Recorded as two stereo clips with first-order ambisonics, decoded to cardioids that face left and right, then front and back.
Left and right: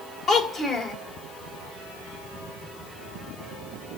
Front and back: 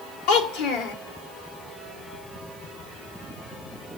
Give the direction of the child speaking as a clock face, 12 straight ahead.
11 o'clock.